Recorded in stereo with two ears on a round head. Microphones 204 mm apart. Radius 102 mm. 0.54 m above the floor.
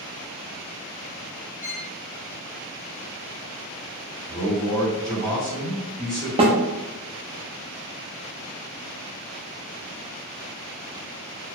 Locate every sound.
1.6 s a violin: 5° right (ahead or behind), 1.4 m
4.3 s a man speaking: 5° left (ahead or behind), 1.3 m
6.4 s a snare drum: 25° right (ahead or behind), 0.6 m